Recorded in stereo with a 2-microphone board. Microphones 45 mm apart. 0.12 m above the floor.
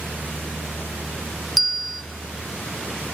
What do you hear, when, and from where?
1.6 s a bell: centre (ahead or behind), 1.9 m